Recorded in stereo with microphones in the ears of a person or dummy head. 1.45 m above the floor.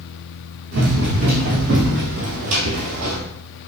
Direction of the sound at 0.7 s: 60° right (ahead or behind).